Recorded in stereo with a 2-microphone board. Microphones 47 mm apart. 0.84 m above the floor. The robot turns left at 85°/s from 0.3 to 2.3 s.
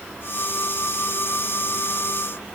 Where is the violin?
No violin in this recording.